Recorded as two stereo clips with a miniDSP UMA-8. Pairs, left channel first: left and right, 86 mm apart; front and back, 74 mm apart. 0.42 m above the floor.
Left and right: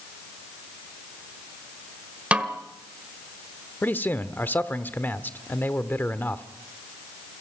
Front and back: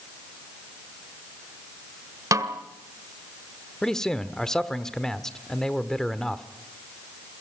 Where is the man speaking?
70° left, 1.0 m.